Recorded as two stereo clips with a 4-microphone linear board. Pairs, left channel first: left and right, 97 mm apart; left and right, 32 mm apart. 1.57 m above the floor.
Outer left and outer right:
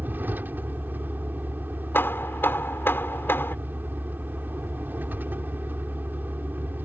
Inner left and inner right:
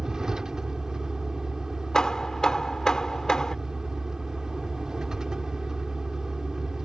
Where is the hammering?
20° left (ahead or behind).